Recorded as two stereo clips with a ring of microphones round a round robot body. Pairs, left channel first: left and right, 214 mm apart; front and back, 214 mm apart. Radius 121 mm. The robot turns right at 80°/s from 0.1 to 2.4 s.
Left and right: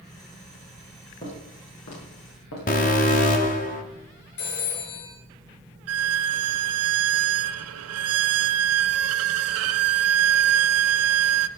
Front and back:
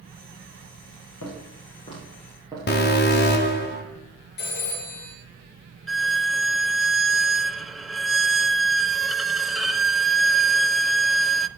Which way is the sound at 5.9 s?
90° right.